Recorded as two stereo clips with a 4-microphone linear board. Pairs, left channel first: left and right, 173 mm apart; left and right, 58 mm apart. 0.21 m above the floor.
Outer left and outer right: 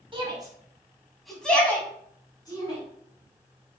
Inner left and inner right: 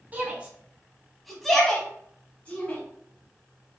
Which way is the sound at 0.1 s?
30° right (ahead or behind).